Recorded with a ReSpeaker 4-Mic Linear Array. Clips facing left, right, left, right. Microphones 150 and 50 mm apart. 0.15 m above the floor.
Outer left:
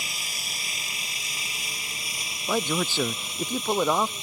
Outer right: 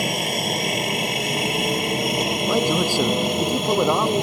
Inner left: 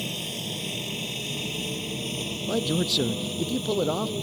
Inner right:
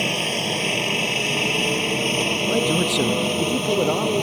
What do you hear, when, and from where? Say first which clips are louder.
0.0 s a helicopter: outer right 18 dB, inner right 10 dB; 60° right (ahead or behind); by 4.2 s 65° right (ahead or behind)
2.5 s a man speaking: outer right 4 dB, inner right 2 dB; 15° right (ahead or behind)